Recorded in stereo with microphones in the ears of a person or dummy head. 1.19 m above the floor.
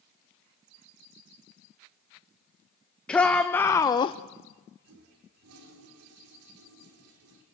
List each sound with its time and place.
3.1 s a shout: 5° left (ahead or behind), 1.1 m; by 4.2 s 30° left (ahead or behind), 0.6 m
4.8 s a toilet flushing: 85° right, 3.5 m